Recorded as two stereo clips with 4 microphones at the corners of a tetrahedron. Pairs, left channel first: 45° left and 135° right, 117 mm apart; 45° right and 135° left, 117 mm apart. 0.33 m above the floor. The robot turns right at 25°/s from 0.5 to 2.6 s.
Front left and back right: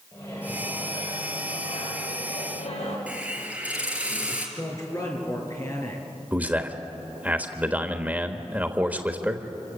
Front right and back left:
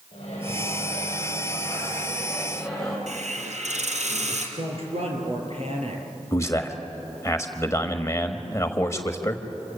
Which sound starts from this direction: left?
A woman speaking, at 4.6 s.